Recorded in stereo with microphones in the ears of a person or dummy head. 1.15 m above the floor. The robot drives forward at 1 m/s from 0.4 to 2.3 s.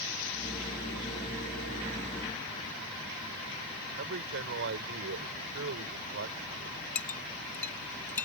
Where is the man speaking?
70° right (ahead or behind).